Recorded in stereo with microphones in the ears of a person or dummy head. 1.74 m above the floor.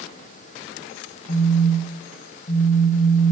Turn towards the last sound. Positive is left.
turn(degrees=35)  # may be behind; listen again after turning